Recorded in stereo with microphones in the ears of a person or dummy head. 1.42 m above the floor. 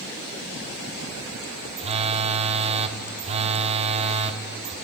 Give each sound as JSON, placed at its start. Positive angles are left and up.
{"t": 1.8, "sound": "a phone buzzing", "side_deg": -35, "distance_m": 0.6}